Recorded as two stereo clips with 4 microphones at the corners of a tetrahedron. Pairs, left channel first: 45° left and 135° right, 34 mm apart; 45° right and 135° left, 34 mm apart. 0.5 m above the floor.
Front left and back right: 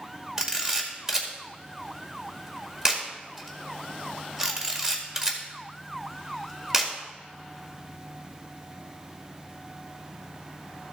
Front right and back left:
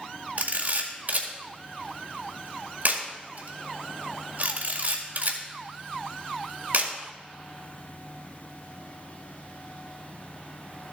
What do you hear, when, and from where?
0.4 s a camera shutter: 150° left, 1.7 m